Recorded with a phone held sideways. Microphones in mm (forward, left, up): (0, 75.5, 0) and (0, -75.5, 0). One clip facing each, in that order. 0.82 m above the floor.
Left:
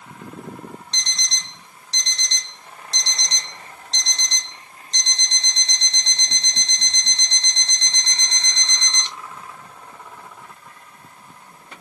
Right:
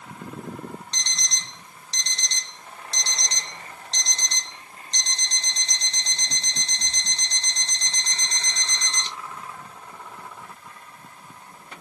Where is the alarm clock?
35° right (ahead or behind), 0.8 m.